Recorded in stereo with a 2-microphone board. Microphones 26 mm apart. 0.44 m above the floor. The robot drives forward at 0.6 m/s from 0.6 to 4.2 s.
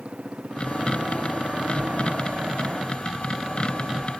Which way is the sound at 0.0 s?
50° right (ahead or behind).